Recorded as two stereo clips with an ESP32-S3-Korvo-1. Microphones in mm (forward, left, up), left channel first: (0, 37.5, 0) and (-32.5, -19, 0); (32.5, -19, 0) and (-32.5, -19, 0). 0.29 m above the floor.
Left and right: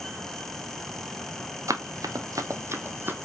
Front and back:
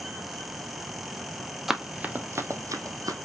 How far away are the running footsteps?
About 0.6 m.